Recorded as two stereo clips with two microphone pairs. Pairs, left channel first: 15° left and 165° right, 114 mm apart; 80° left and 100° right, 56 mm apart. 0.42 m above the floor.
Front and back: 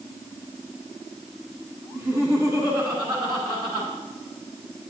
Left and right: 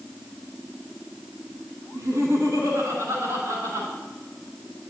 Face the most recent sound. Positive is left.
turn(degrees=-115)